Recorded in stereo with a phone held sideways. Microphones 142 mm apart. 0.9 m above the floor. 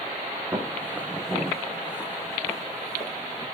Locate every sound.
0.5 s footsteps: 20° right (ahead or behind), 2.5 m; by 3.5 s 35° left (ahead or behind), 3.5 m